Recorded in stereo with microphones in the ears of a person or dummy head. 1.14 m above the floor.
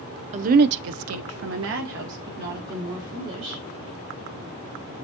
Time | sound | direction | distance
0.3 | a woman speaking | 35° right (ahead or behind) | 0.5 m